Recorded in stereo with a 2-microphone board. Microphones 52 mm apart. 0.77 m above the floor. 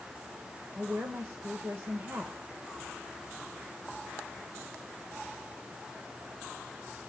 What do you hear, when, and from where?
0.8 s a woman speaking: 55° right (ahead or behind), 2.5 m